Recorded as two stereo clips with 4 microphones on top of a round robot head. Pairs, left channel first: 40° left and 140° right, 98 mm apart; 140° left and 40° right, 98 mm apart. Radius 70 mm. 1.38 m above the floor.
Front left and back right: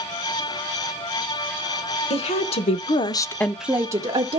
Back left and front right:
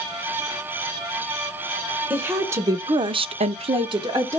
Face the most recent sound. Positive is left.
turn(degrees=-100)